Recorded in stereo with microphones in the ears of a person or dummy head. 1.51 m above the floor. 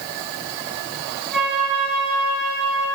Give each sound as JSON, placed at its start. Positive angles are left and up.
{"t": 1.3, "sound": "a flute", "side_deg": 0, "distance_m": 2.0}